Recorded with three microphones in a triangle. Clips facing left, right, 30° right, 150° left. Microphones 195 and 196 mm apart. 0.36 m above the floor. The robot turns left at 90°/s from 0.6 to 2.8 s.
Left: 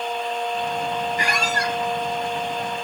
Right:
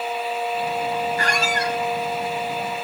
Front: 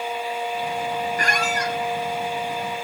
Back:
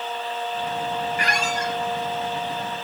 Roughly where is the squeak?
Ahead.